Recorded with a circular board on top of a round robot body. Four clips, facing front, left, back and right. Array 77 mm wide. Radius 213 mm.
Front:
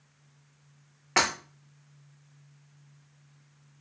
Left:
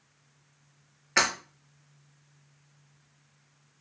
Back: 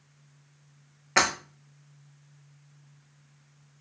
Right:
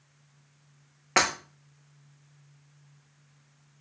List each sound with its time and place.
1.2 s breaking glass: 75° right, 0.8 m